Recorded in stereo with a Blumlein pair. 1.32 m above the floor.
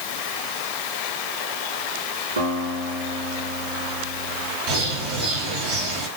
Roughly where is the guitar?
Right.